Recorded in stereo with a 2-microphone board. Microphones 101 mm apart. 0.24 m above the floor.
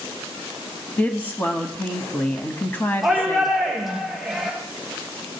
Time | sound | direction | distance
1.0 | a woman speaking | 20° left (ahead or behind) | 1.3 m
3.0 | a shout | 5° right (ahead or behind) | 4 m